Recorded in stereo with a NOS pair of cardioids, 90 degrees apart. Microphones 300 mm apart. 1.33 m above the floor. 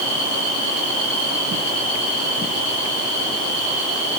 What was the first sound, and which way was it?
Only background noise.